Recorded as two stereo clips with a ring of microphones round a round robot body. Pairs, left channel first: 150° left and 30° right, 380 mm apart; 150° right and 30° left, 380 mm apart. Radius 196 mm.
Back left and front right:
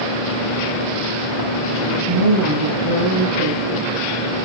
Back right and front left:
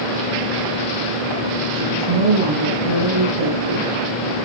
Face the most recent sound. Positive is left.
turn(degrees=10)